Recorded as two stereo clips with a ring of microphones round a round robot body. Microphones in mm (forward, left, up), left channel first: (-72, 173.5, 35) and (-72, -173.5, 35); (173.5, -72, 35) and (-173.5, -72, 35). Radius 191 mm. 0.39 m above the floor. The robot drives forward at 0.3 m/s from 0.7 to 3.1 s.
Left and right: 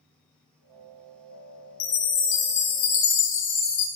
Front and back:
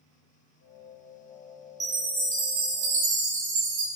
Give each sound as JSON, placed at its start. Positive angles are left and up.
{"t": 1.8, "sound": "a chime", "azimuth_deg": 100, "distance_m": 0.9}